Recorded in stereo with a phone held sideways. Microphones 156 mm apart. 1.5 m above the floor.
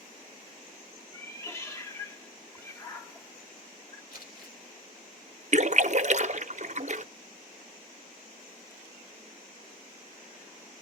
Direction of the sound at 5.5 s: 50° right (ahead or behind).